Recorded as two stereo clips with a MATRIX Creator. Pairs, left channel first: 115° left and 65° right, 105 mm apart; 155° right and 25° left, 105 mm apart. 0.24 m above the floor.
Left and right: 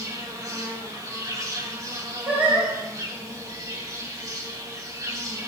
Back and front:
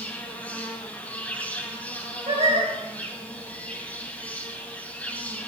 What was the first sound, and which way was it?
An insect, 90° right.